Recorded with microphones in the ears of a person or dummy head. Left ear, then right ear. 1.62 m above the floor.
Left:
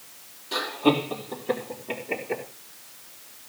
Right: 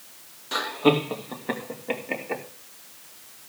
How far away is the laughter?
About 3 m.